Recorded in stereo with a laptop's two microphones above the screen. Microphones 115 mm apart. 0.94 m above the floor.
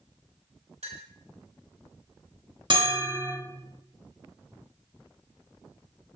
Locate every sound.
0.8 s a clink: 80° right, 2.5 m
2.7 s a bell: 50° right (ahead or behind), 1.0 m